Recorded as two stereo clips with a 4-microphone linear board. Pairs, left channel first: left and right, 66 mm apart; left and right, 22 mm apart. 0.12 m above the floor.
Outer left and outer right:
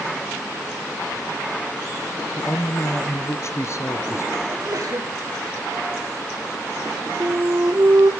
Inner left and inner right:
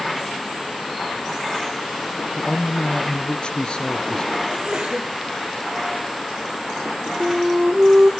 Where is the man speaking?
50° left (ahead or behind), 1.7 m.